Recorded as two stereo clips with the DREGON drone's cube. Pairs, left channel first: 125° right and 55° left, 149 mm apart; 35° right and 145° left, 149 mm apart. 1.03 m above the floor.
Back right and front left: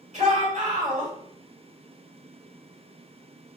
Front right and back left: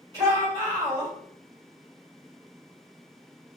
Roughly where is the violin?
I don't hear a violin.